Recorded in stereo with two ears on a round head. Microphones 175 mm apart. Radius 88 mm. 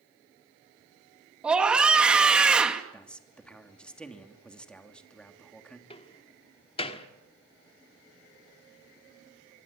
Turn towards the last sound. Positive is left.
turn(degrees=30)  # may be behind; listen again after turning